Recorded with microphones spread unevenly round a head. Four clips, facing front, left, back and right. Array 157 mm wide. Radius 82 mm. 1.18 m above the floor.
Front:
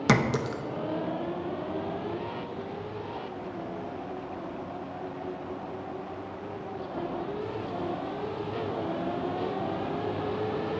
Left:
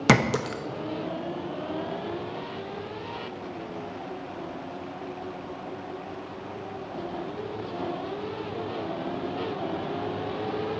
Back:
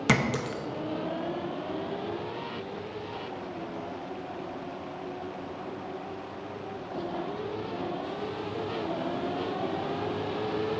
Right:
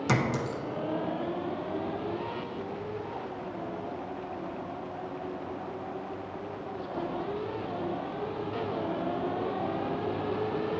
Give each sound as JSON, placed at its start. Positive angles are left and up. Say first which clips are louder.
{"t": 0.1, "sound": "a clink", "louder": "left 7 dB, front 2 dB", "azimuth_deg": 85, "distance_m": 0.6}